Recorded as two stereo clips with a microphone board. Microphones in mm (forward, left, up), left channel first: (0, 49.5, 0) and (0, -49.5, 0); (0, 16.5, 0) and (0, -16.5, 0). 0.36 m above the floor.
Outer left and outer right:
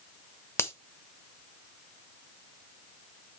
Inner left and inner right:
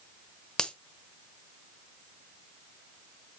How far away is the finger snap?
About 1.0 m.